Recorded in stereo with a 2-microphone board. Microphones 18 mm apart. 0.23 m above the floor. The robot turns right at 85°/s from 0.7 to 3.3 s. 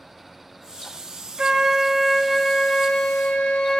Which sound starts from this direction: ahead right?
A flute, at 1.4 s.